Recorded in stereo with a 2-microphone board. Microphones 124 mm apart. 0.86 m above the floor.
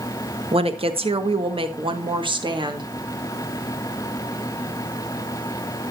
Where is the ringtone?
I don't hear a ringtone.